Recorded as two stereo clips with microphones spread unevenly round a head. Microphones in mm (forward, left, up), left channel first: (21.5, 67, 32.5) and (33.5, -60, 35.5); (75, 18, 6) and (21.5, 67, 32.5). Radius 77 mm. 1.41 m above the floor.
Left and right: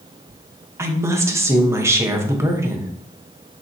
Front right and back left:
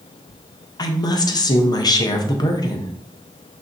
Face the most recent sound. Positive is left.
turn(degrees=-15)